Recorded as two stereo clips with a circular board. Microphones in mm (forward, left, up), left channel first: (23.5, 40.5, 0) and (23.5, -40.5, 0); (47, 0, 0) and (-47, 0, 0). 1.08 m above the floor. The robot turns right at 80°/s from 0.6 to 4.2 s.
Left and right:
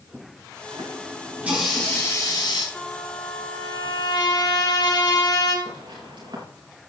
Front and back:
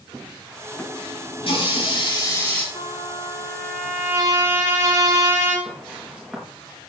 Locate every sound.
0.7 s a running tap: 75° right, 7.5 m; by 2.6 s 80° left, 7.5 m
2.7 s a trumpet: 10° left, 5 m; by 5.5 s 125° left, 5 m
5.7 s footsteps: 105° right, 6.5 m